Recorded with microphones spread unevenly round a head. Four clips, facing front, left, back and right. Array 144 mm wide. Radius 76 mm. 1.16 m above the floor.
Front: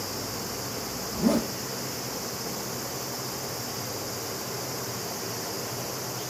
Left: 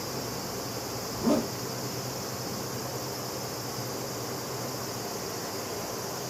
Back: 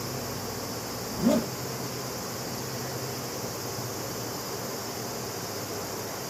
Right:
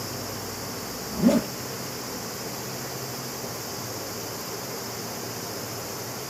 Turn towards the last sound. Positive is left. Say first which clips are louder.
# right 5 dB, even
turn(degrees=-70)